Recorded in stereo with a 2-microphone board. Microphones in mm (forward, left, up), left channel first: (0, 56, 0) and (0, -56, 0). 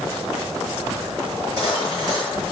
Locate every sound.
1.3 s cutlery clinking: 35° right (ahead or behind), 6.5 m